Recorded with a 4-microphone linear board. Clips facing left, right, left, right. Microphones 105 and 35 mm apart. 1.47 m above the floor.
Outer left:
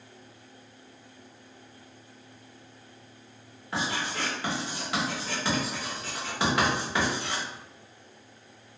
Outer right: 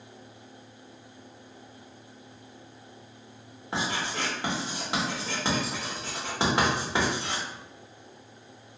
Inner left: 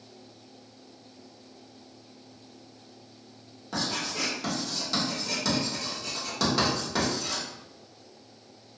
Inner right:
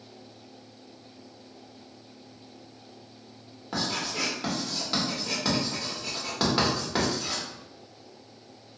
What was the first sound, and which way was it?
Writing, 25° right (ahead or behind).